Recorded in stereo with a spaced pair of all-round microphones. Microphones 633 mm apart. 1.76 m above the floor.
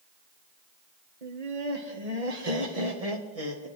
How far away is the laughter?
About 1.9 m.